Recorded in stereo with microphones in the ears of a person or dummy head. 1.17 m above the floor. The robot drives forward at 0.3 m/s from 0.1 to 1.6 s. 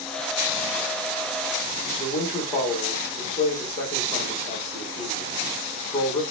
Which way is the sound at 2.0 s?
20° left (ahead or behind).